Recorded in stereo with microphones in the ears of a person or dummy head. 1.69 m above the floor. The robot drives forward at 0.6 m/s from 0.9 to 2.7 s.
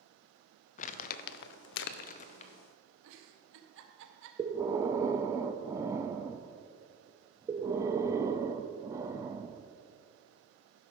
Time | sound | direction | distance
0.8 | crumpling | 45° left (ahead or behind) | 0.6 m
3.0 | a giggle | 75° right (ahead or behind) | 1.4 m
4.4 | breathing | 15° right (ahead or behind) | 0.6 m